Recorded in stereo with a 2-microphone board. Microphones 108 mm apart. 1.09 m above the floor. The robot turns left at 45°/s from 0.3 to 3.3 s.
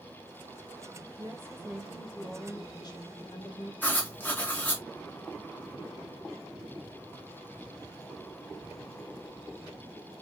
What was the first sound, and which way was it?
A woman speaking, 145° right.